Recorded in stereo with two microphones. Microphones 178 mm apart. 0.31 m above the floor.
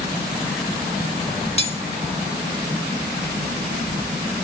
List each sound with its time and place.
1.6 s cutlery clinking: 35° left (ahead or behind), 0.6 m